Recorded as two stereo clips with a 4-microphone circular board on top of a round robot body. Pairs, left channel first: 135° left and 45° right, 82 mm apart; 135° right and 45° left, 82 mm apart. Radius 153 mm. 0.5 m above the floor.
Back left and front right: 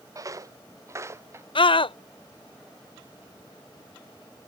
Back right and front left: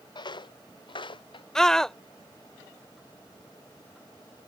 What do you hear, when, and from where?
0.1 s footsteps: 100° right; by 1.4 s 110° right
1.6 s a scream: 140° left